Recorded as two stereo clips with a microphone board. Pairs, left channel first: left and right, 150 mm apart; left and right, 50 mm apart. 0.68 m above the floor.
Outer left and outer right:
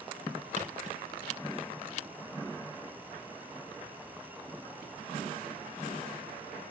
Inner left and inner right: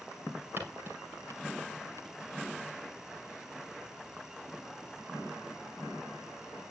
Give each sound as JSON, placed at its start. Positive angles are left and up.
{"t": 0.6, "sound": "footsteps", "side_deg": -50, "distance_m": 5.0}